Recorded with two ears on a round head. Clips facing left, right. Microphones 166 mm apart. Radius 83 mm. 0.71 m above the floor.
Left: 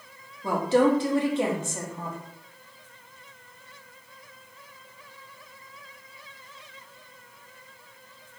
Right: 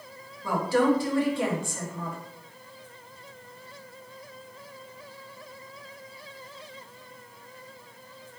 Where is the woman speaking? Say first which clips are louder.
Left 2 dB; 20° left (ahead or behind), 0.5 m.